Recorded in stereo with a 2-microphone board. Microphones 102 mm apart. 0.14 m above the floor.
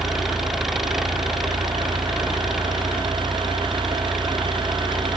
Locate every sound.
0.0 s an engine running: centre (ahead or behind)